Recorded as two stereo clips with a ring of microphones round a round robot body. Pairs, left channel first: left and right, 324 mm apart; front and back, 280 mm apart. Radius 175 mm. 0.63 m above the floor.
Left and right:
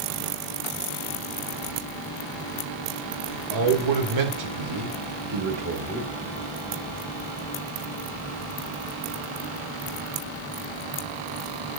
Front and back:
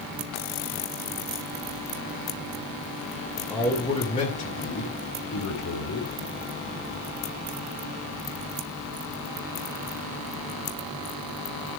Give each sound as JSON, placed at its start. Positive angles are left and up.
{"t": 3.5, "sound": "a man speaking", "azimuth_deg": -85, "distance_m": 2.5}